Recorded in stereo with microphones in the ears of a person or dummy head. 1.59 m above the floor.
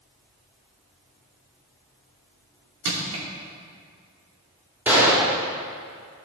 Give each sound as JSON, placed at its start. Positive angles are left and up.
{"t": 2.9, "sound": "crushing", "side_deg": -75, "distance_m": 2.5}
{"t": 4.9, "sound": "a gunshot", "side_deg": -10, "distance_m": 1.9}